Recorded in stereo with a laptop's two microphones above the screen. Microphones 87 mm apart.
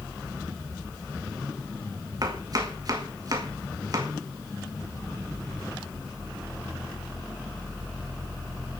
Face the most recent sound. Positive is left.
turn(degrees=-45)  # may be behind; listen again after turning